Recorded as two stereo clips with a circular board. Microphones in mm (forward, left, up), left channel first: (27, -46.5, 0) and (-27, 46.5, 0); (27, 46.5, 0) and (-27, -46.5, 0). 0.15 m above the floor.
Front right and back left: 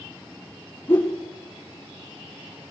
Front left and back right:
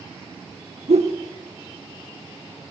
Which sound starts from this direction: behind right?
A whoosh, at 0.9 s.